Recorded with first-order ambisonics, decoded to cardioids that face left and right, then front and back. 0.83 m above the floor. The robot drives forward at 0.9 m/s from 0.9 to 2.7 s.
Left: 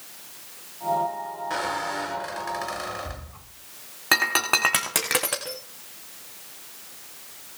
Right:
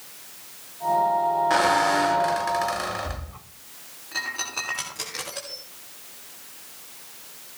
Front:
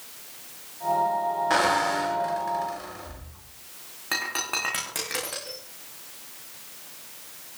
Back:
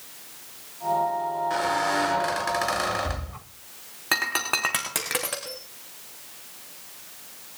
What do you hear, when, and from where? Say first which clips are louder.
1.5 s a squeak: right 6 dB, front 3 dB; 35° right, 0.6 m; by 3.5 s 165° right, 0.9 m
4.1 s breaking glass: left 9 dB, back 3 dB; 110° left, 5.5 m